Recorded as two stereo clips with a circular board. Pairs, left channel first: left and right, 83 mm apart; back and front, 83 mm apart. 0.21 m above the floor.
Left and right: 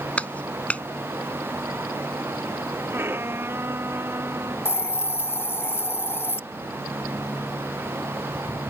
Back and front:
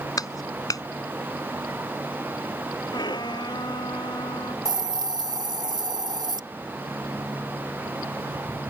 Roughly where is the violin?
Behind right.